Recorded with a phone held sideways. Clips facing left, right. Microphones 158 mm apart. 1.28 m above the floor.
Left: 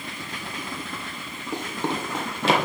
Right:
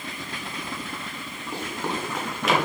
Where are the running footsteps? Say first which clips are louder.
Left 2 dB; 20° left (ahead or behind), 1.8 m; by 2.5 s 30° left (ahead or behind), 1.7 m.